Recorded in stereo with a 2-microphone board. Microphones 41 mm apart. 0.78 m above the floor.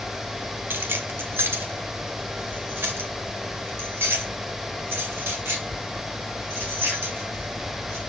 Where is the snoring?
I don't hear snoring.